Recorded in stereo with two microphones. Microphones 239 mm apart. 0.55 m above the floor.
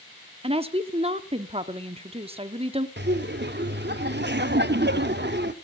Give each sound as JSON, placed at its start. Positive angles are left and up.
{"t": 0.4, "sound": "a woman speaking", "side_deg": -25, "distance_m": 0.9}
{"t": 3.0, "sound": "laughter", "side_deg": -45, "distance_m": 0.8}